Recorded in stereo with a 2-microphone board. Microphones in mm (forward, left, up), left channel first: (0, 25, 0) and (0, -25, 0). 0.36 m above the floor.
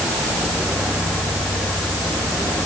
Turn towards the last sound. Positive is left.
No sound to turn to.